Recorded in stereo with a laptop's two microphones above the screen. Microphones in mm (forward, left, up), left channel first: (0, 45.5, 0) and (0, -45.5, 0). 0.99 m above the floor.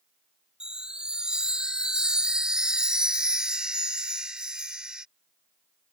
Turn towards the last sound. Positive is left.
turn(degrees=-10)  # may be behind; listen again after turning